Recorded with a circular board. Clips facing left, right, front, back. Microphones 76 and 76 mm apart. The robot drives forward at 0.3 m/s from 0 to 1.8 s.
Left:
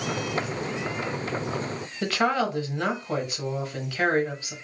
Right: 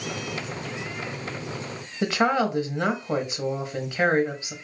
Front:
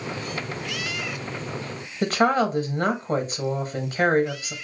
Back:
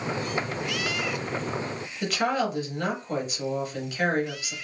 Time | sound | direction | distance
2.0 | a woman speaking | 30° right | 0.8 m